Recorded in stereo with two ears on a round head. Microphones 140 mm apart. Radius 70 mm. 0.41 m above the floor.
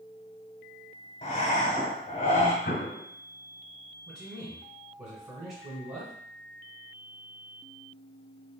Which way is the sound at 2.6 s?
75° left (ahead or behind).